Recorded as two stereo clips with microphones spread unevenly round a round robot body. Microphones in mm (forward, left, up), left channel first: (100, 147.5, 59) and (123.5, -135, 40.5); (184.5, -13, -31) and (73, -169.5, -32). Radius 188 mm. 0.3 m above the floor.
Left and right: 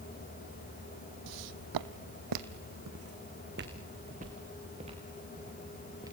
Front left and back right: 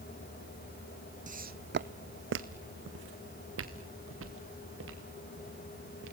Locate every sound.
1.3 s footsteps: 75° right, 1.1 m; by 6.1 s 165° right, 4 m